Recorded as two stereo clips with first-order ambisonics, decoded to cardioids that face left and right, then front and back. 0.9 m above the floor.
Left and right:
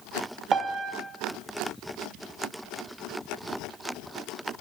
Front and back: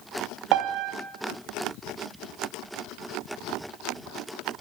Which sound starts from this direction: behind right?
A piano, at 0.5 s.